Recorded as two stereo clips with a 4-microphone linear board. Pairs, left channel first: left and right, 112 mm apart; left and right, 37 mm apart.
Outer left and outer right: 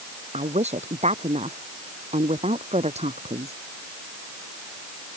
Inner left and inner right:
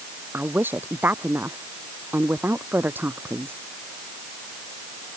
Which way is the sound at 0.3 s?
80° right.